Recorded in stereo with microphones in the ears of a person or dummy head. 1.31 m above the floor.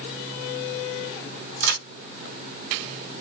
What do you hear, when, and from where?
1.6 s a crack: 65° right (ahead or behind), 2.5 m